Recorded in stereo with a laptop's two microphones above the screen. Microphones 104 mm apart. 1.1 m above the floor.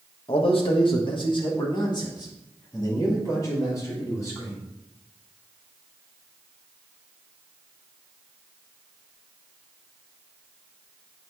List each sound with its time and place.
0.3 s a man speaking: 60° left (ahead or behind), 1.6 m; by 4.6 s 30° left (ahead or behind), 4 m